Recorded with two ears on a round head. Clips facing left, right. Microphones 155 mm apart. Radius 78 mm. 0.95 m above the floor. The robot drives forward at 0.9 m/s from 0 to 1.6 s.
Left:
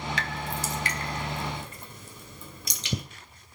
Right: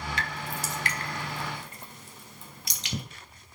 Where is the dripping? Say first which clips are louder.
Left 2 dB; 55° left (ahead or behind), 2.5 m; by 3.0 s 85° left, 1.9 m.